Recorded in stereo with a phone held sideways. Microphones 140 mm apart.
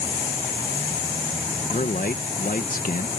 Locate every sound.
1.7 s a man speaking: 80° left